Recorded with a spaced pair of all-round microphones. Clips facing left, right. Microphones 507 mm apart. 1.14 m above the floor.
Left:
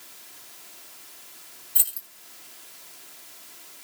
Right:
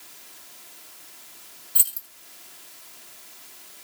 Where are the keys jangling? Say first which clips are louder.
Even; 25° right (ahead or behind), 0.8 m.